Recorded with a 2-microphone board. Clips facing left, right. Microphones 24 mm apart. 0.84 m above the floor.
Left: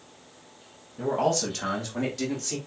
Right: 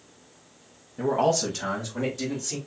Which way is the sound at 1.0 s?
20° right (ahead or behind).